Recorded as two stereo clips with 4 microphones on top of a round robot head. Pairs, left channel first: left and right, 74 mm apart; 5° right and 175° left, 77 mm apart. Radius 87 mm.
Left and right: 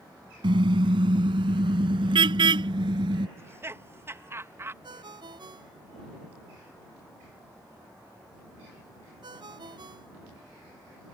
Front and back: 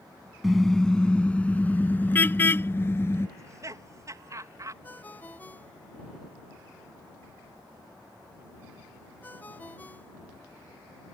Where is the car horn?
90° right; by 3.3 s 65° right.